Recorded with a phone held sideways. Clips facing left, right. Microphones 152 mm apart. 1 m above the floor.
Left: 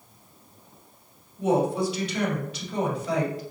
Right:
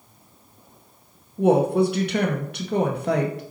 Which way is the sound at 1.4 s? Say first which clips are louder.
Right 5 dB; 65° right (ahead or behind).